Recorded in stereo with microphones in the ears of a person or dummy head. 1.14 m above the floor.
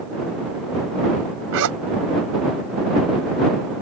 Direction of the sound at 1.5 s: 75° right (ahead or behind).